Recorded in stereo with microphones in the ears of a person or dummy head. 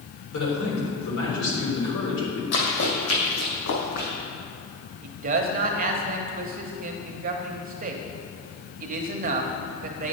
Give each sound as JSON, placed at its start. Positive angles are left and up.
{"t": 0.3, "sound": "a man speaking", "side_deg": 70, "distance_m": 3.5}
{"t": 2.5, "sound": "running footsteps", "side_deg": 60, "distance_m": 2.5}
{"t": 5.0, "sound": "a man speaking", "side_deg": -40, "distance_m": 0.9}